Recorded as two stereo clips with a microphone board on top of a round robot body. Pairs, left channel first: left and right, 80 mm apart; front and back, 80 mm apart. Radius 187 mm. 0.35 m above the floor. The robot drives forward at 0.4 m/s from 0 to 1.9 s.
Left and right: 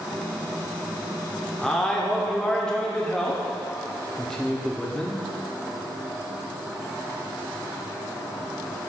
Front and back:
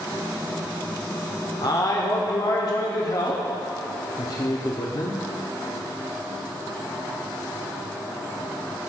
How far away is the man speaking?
About 1.5 m.